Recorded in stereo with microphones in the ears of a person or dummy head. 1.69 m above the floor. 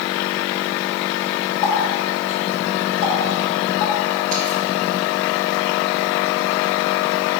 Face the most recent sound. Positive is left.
turn(degrees=35)  # may be behind; listen again after turning